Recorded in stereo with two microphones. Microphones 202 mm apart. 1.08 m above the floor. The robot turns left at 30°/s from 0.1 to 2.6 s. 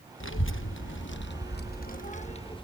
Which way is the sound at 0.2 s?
80° left.